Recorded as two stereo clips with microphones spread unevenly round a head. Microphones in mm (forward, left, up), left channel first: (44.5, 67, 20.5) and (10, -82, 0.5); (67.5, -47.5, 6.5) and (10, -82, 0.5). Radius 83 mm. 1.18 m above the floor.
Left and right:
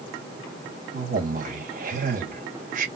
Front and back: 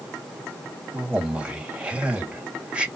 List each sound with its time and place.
0.9 s a man speaking: 75° right, 2.5 m